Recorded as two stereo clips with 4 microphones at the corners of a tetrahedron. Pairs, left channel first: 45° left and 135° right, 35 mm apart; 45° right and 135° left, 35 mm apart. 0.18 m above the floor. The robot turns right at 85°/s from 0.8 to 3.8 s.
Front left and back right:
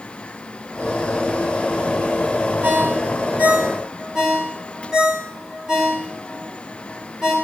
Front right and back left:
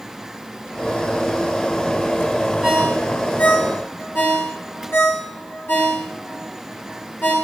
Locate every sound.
2.6 s a ringtone: 155° right, 8 m; by 7.3 s 55° right, 8 m